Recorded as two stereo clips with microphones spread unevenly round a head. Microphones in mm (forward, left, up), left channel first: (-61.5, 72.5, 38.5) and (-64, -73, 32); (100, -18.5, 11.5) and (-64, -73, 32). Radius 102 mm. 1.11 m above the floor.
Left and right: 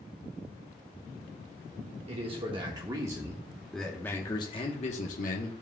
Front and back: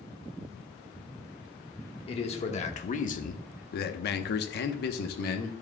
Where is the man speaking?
35° right, 1.5 m; by 5.5 s 60° left, 1.1 m.